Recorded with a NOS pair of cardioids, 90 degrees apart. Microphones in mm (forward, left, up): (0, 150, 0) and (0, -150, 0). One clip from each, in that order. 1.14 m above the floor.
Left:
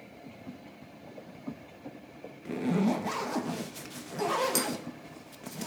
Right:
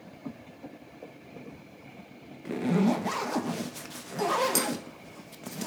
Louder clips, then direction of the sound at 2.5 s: Right 2 dB; 10° right.